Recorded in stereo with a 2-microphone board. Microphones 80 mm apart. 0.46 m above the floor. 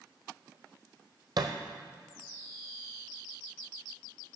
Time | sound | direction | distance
1.4 | a thud | 65° right (ahead or behind) | 1.0 m